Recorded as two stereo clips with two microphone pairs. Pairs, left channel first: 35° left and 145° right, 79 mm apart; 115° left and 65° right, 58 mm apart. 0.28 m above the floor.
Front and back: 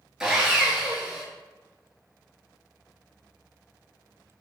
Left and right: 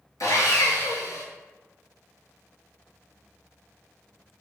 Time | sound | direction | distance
0.2 | sawing | 135° left | 0.7 m